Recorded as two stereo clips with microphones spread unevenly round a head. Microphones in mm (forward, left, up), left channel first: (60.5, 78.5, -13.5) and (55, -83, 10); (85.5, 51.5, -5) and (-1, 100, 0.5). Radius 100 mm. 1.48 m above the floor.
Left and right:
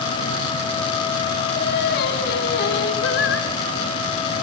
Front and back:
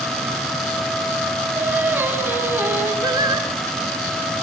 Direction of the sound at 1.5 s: 85° left.